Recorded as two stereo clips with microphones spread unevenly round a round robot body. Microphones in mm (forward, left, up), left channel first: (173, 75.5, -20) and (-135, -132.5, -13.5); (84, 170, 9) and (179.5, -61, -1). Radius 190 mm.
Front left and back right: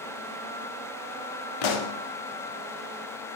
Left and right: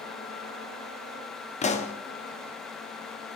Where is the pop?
45° left, 0.7 m.